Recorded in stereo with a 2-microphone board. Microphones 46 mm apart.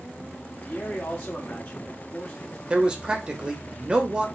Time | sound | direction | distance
0.5 | a man speaking | 35° left (ahead or behind) | 1.5 m
2.7 | a man speaking | 20° right (ahead or behind) | 0.9 m